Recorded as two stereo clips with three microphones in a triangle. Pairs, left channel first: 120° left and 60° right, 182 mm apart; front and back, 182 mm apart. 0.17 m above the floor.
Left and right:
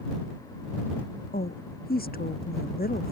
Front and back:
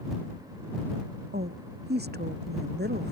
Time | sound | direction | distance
1.3 | a woman speaking | 155° left | ?